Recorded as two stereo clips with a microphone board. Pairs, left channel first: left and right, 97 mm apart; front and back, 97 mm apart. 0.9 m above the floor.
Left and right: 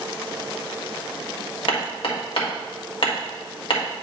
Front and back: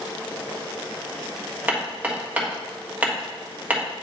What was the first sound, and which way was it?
Hammering, 110° left.